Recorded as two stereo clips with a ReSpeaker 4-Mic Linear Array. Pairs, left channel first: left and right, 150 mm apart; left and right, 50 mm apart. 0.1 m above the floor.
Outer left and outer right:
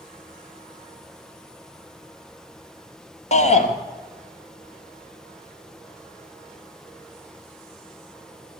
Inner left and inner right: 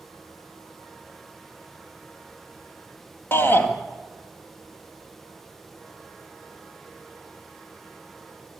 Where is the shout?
50° left (ahead or behind), 2.5 m.